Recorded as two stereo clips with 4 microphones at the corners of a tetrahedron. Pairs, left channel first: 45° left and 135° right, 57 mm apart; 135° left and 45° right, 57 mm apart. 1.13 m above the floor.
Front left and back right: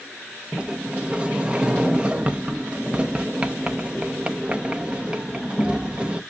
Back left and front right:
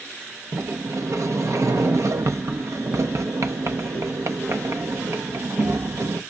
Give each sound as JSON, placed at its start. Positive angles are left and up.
{"t": 0.5, "sound": "a sliding door", "azimuth_deg": -70, "distance_m": 0.8}